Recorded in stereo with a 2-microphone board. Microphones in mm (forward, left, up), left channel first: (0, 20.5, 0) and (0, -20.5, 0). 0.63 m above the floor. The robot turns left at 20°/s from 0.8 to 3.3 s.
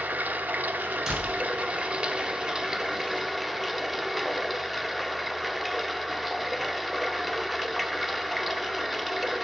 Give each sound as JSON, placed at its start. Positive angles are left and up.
{"t": 0.0, "sound": "running water", "azimuth_deg": -130, "distance_m": 0.7}
{"t": 1.1, "sound": "a door slam", "side_deg": -20, "distance_m": 4.5}